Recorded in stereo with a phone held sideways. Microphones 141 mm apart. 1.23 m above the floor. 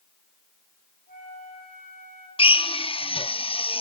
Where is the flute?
75° left (ahead or behind), 5 m.